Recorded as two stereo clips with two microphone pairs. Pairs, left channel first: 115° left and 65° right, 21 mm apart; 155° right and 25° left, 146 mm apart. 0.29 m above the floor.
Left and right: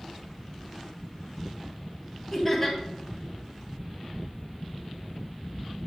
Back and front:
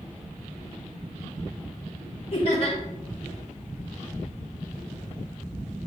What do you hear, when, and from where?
2.3 s laughter: 175° right, 1.7 m